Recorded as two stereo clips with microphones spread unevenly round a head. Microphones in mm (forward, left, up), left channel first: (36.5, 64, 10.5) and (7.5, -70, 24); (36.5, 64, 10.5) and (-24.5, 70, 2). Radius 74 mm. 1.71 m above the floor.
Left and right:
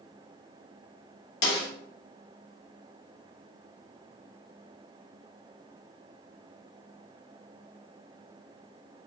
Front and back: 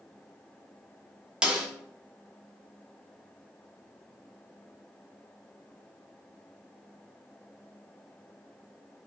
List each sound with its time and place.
1.4 s a snare drum: 100° left, 2.5 m